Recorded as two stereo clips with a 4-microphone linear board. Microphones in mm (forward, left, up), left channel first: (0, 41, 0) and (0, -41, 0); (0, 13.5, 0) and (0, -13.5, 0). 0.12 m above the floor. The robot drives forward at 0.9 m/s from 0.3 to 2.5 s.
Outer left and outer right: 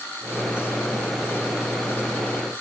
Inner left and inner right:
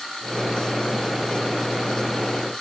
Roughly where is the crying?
I don't hear crying.